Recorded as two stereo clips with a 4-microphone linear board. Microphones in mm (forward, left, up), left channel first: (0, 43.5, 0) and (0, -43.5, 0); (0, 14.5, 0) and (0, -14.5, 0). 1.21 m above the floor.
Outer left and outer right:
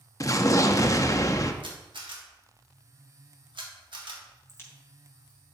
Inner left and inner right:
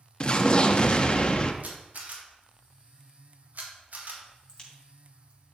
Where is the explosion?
40° left (ahead or behind), 0.7 m.